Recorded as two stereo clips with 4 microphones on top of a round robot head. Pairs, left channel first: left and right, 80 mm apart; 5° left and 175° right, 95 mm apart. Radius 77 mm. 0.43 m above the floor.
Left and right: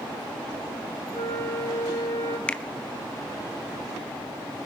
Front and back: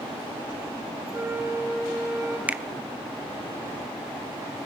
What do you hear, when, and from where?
1.1 s a flute: 130° left, 3 m
2.5 s a finger snap: 140° left, 0.7 m